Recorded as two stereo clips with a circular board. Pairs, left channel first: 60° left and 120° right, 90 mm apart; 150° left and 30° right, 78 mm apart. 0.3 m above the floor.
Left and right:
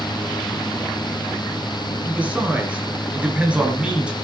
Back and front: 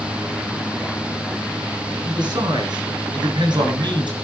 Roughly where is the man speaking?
Ahead right.